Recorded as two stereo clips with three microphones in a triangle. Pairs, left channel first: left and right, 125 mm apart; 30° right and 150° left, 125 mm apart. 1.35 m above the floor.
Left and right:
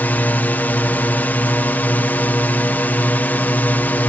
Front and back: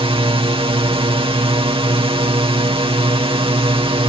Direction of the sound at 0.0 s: 160° left.